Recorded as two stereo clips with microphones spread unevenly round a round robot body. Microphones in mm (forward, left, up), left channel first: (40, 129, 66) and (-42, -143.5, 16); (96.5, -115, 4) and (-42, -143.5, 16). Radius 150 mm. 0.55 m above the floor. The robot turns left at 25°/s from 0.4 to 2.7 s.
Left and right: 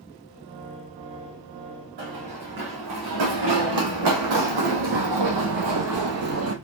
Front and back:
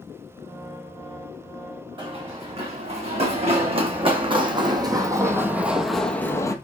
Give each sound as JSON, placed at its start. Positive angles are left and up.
{"t": 2.0, "sound": "running footsteps", "azimuth_deg": -115, "distance_m": 3.5}